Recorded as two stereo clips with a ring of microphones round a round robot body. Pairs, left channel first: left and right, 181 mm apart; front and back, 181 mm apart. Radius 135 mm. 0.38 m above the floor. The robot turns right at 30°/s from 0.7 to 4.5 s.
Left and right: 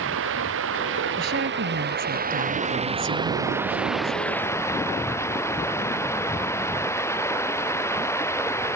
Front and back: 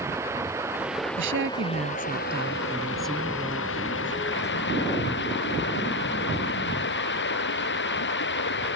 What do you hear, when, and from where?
0.0 s running water: 100° right; by 8.8 s 15° left
1.2 s a woman speaking: 145° right; by 4.1 s 55° right